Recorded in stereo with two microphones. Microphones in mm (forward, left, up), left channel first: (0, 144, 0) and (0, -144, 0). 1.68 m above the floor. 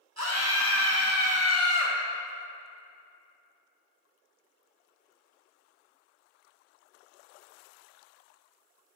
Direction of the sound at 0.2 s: 65° right (ahead or behind).